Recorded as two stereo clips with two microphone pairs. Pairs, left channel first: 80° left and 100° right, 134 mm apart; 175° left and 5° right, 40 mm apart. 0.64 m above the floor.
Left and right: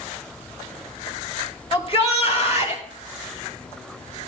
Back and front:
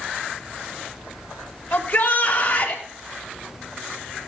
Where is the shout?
125° left, 2.5 m; by 2.8 s 115° left, 3.5 m.